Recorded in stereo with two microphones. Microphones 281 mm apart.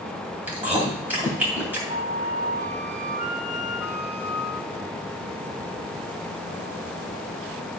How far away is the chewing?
About 3 m.